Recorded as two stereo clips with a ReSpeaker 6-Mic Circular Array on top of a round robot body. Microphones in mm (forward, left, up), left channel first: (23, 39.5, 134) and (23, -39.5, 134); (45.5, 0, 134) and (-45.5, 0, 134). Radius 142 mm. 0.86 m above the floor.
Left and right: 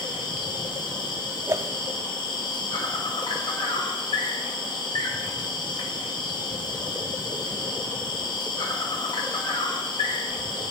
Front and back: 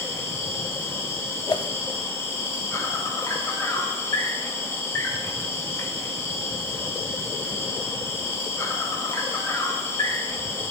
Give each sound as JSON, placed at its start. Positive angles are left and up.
{"t": 0.0, "sound": "an insect", "azimuth_deg": 65, "distance_m": 2.0}
{"t": 1.5, "sound": "a whoosh", "azimuth_deg": -40, "distance_m": 0.6}